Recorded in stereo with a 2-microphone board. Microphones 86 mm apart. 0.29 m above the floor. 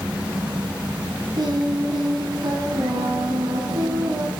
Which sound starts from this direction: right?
Singing, at 1.4 s.